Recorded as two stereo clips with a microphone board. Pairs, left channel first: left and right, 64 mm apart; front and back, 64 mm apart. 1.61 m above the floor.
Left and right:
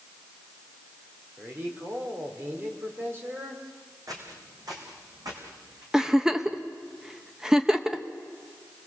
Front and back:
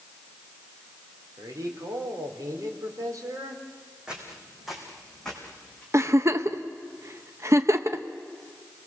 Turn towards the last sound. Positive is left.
turn(degrees=-165)